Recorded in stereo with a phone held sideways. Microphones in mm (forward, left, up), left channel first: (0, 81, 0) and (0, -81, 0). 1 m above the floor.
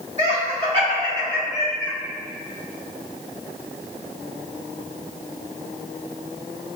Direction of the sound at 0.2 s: 45° right (ahead or behind).